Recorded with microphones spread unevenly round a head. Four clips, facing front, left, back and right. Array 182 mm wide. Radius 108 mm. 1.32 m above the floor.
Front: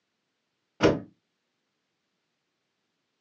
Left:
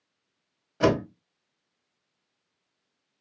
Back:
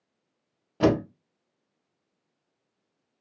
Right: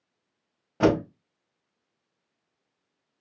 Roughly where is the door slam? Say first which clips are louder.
Right 1 dB, back 1 dB; behind right.